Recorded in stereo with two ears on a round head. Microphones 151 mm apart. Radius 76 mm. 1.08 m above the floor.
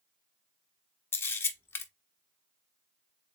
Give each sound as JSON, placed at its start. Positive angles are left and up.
{"t": 1.1, "sound": "a camera shutter", "side_deg": 15, "distance_m": 0.7}